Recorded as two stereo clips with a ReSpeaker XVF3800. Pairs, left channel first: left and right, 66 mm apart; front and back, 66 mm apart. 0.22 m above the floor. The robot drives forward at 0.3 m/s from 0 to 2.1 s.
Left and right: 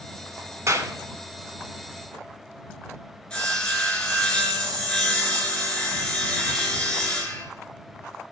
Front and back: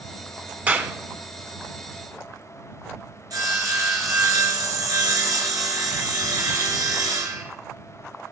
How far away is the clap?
About 1.6 m.